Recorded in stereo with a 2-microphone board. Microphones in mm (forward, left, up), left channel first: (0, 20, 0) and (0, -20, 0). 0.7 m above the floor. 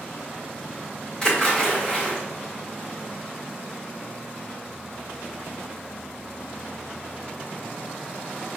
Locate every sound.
1.2 s a splash: 20° left (ahead or behind), 1.6 m